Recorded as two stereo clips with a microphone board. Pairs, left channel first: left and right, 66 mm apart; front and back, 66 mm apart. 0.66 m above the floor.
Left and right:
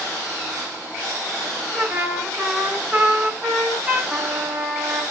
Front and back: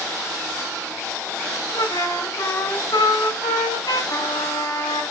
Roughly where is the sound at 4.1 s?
Ahead.